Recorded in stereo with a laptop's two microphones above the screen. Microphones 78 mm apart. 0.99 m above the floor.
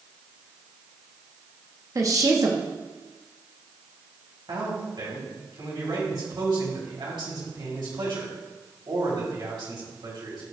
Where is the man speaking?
75° right (ahead or behind), 3 m.